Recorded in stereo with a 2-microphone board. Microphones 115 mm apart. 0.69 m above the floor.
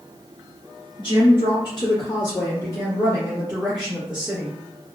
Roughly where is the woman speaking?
Left.